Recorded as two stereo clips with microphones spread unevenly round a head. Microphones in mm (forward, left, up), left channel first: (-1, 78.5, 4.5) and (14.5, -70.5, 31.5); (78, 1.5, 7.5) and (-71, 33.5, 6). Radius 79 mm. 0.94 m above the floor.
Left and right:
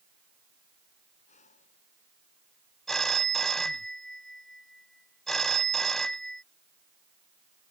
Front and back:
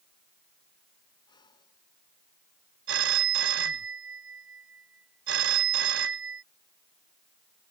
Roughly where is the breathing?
Ahead left.